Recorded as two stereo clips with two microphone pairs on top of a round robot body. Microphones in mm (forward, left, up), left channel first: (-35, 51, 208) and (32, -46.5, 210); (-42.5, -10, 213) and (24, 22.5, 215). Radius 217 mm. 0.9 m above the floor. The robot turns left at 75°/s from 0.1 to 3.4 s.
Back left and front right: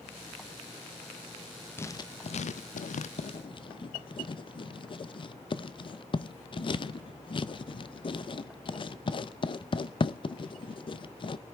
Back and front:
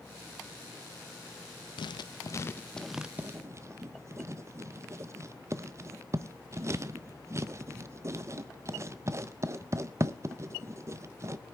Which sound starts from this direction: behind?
Writing, at 1.8 s.